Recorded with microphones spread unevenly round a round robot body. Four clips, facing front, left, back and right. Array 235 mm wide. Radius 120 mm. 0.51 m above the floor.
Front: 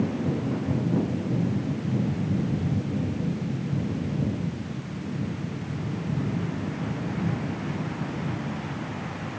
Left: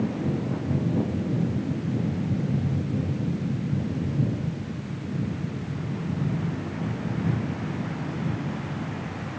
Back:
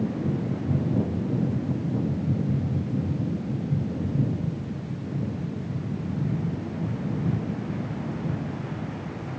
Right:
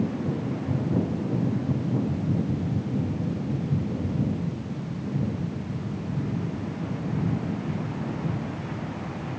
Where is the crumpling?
I don't hear crumpling.